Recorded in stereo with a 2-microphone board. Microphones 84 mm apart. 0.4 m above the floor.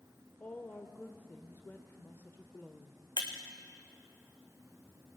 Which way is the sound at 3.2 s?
70° left (ahead or behind).